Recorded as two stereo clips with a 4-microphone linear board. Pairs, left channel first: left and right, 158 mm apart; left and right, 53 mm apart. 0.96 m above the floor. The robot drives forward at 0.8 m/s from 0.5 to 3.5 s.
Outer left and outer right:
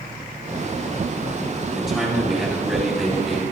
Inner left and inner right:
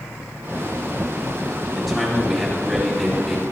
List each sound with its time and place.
1.7 s a man speaking: centre (ahead or behind), 8.5 m